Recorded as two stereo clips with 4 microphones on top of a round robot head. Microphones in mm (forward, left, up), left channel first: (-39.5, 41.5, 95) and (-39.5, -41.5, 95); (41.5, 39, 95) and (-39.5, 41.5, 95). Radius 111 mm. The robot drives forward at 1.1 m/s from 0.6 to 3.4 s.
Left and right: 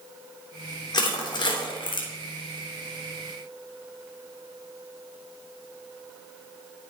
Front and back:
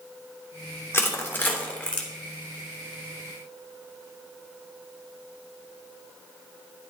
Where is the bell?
No bell in this recording.